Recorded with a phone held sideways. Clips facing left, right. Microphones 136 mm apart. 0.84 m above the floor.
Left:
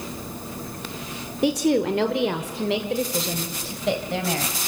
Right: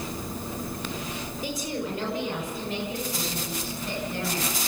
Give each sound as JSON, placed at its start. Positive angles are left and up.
{"t": 1.4, "sound": "a woman speaking", "side_deg": 65, "distance_m": 2.0}